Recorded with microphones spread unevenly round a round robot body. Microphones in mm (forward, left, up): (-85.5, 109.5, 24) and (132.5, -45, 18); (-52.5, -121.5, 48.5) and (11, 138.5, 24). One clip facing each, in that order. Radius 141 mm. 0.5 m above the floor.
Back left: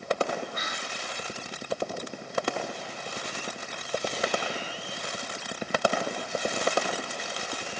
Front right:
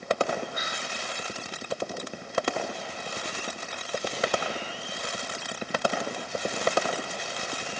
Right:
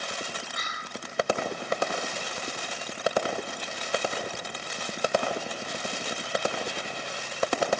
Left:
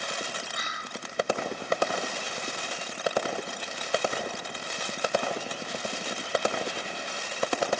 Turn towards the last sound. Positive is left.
turn(degrees=-115)